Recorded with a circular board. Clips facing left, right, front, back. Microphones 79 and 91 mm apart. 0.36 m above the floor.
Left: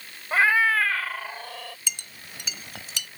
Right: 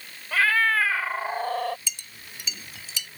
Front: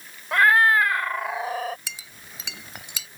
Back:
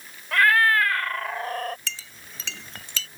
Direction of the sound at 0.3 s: 50° left.